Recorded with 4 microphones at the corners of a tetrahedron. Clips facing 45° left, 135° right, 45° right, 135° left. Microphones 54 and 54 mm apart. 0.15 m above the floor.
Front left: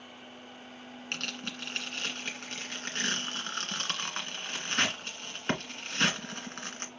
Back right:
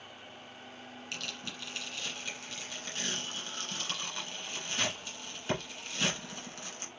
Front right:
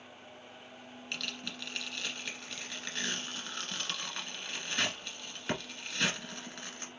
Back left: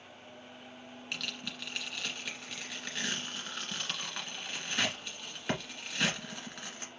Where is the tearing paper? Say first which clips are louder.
Front left 5 dB, even; 55° left, 1.8 m.